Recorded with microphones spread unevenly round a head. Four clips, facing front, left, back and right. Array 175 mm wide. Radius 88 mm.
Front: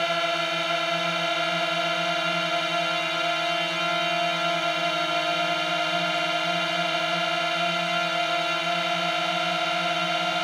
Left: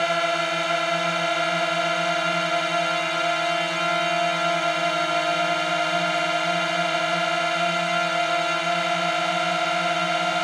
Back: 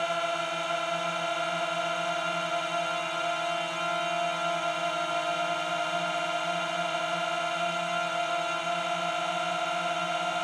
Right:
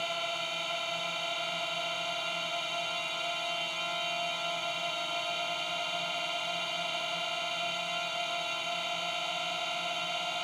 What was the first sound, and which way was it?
A drone, 60° left.